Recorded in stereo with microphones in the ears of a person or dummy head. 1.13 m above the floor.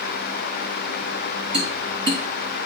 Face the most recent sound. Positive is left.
turn(degrees=-70)  # may be behind; listen again after turning